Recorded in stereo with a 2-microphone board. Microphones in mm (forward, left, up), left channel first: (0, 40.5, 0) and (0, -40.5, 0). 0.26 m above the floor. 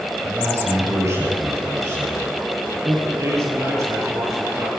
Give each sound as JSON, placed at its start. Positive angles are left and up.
{"t": 0.2, "sound": "a man speaking", "side_deg": -35, "distance_m": 5.0}
{"t": 3.1, "sound": "a man speaking", "side_deg": -40, "distance_m": 7.5}